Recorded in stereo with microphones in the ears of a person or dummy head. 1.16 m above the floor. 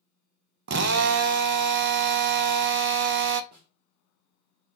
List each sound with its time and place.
0.7 s a drill: 55° right (ahead or behind), 0.5 m
3.5 s a snare drum: 50° right (ahead or behind), 1.4 m